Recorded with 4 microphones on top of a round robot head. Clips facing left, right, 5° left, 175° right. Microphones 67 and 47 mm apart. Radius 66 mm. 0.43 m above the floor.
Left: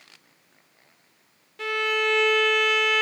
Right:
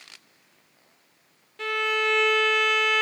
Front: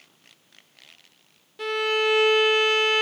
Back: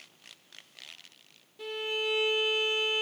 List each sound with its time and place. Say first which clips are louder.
1.6 s a violin: left 1 dB, front 10 dB; straight ahead, 0.5 m